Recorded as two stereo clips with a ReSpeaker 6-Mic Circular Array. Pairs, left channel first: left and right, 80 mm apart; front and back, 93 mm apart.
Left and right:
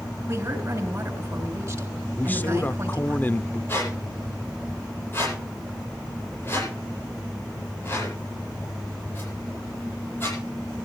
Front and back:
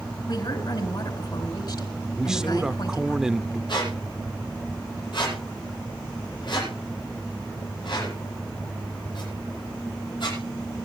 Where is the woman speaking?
30° right, 4.5 m.